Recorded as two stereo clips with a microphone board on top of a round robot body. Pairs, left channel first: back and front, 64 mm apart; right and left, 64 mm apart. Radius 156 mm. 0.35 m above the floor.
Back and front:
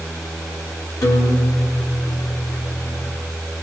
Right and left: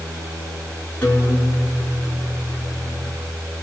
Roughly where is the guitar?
Behind.